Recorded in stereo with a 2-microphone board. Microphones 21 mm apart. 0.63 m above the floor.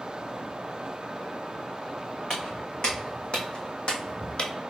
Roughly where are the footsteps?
Left.